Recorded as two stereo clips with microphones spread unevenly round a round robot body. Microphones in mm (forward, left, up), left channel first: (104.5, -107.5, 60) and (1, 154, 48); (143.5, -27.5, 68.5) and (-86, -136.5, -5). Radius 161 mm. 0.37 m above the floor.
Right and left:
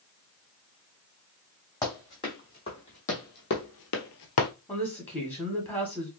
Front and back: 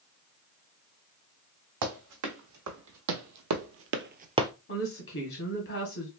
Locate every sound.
1.8 s running footsteps: 150° right, 1.7 m; by 4.5 s 65° right, 0.6 m
4.7 s a woman speaking: 15° left, 1.3 m